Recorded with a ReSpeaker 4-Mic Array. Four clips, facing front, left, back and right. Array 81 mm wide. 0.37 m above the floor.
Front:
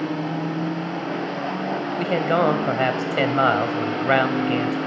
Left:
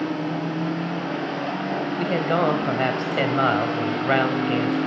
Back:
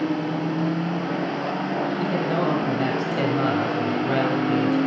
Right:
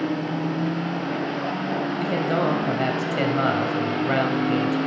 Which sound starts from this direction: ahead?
A man speaking, at 2.0 s.